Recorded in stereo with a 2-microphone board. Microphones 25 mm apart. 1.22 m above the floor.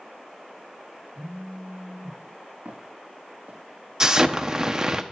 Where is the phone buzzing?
60° left (ahead or behind), 7.5 m.